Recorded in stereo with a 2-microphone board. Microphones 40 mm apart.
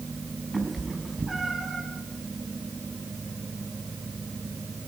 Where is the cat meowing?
10° right (ahead or behind), 5 m; by 1.9 s 5° right (ahead or behind), 4 m.